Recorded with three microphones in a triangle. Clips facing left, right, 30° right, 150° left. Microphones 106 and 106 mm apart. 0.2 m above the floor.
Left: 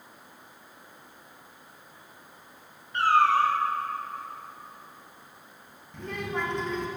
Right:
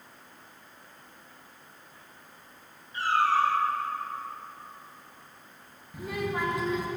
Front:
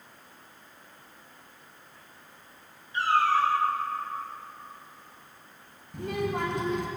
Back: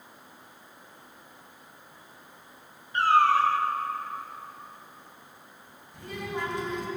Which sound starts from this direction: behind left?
A cat meowing, at 2.9 s.